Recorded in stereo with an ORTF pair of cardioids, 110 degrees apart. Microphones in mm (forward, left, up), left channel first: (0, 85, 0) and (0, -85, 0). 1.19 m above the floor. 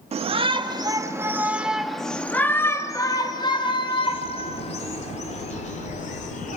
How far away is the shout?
About 1.9 m.